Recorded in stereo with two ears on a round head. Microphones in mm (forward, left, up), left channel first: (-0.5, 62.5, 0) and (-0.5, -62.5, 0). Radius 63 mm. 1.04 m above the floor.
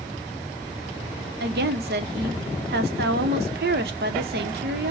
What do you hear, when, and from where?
1.4 s a woman speaking: 80° right, 0.7 m